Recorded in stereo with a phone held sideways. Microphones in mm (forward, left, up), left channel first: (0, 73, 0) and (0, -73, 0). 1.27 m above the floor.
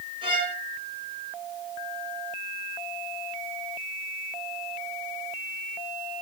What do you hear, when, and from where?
0.2 s a violin: 35° right (ahead or behind), 4 m